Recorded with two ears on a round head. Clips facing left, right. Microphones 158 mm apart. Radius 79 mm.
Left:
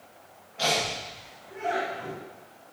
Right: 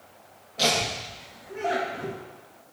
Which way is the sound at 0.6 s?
50° right (ahead or behind).